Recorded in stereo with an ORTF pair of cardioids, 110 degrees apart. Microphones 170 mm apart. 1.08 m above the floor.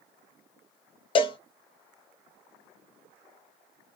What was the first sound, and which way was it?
A cowbell, 35° left.